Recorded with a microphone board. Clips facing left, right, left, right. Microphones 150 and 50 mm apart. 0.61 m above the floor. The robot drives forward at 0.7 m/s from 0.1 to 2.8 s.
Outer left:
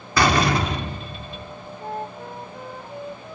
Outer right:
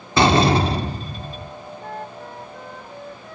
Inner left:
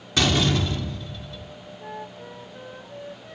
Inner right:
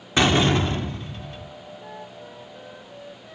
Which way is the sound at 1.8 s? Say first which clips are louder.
Outer left 4 dB, inner left 6 dB; 20° left (ahead or behind).